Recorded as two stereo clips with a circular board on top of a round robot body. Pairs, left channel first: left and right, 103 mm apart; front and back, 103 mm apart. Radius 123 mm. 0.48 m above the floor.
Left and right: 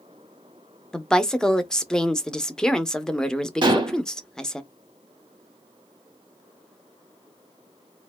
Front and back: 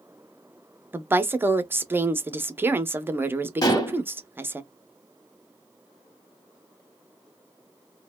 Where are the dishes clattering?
50° right, 0.9 m.